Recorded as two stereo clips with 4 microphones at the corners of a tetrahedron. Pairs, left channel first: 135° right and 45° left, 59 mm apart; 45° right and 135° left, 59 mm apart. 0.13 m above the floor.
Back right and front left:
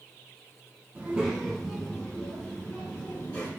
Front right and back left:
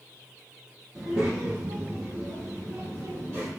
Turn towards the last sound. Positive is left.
turn(degrees=-170)